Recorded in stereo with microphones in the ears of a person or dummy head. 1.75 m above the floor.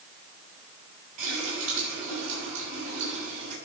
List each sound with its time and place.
1.2 s a running tap: 40° right (ahead or behind), 8 m